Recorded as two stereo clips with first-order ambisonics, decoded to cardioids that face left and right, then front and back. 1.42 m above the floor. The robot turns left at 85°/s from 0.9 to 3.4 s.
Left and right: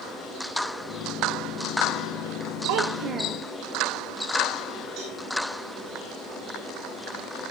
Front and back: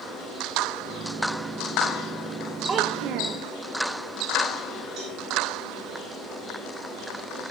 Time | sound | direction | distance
2.7 | a child speaking | 105° right | 1.1 m
5.0 | a cowbell | 130° right | 9.5 m